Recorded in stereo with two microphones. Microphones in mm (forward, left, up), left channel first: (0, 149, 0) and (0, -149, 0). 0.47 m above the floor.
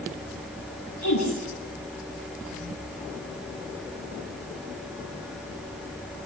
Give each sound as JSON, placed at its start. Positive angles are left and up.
{"t": 1.0, "sound": "a woman speaking", "side_deg": 65, "distance_m": 10.0}